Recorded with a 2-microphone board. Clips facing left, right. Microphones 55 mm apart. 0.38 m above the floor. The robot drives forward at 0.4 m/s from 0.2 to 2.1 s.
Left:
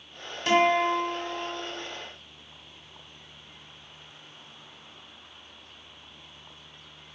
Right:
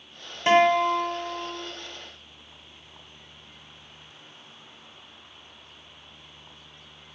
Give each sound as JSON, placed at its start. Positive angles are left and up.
{"t": 0.5, "sound": "a guitar", "side_deg": -25, "distance_m": 0.7}